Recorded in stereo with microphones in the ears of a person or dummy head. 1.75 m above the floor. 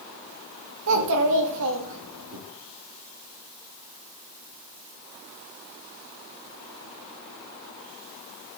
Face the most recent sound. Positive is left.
turn(degrees=-75)  # may be behind; listen again after turning